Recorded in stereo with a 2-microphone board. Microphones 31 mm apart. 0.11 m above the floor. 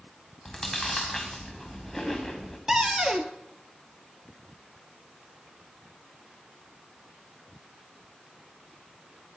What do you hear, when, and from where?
0.5 s chewing: centre (ahead or behind), 2.5 m
2.7 s a cupboard door: 20° right (ahead or behind), 0.9 m